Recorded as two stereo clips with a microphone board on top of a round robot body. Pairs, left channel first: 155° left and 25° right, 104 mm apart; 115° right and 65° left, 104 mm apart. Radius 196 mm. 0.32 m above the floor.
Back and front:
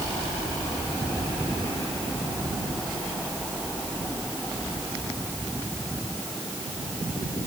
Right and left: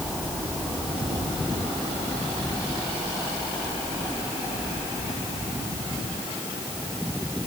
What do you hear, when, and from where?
Only background noise.